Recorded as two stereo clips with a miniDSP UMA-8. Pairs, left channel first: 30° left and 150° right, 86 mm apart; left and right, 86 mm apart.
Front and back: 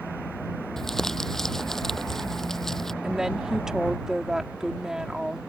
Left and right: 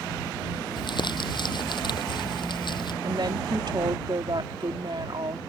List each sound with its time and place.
0.8 s crumpling: 115° left
3.0 s a woman speaking: 65° right